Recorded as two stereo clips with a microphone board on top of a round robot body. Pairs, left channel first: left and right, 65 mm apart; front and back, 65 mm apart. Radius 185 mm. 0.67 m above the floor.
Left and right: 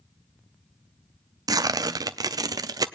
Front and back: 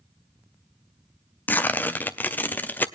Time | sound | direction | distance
1.5 | tearing paper | 65° right | 0.6 m